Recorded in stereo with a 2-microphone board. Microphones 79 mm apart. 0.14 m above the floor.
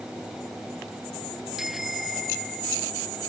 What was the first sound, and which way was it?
A bicycle bell, 5° right (ahead or behind).